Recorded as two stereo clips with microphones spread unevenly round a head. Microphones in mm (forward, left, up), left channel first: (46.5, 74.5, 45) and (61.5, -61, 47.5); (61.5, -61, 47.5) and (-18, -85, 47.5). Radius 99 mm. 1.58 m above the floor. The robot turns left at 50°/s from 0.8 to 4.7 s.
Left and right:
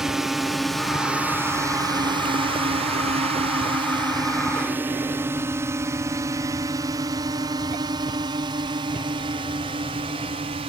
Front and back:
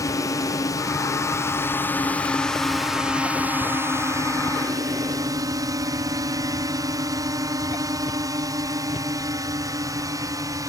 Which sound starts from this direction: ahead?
A drone, at 0.0 s.